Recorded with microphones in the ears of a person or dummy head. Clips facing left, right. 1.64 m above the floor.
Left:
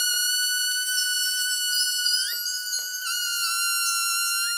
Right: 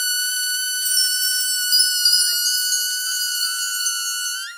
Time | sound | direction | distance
0.8 | a chime | 55° right (ahead or behind) | 0.8 m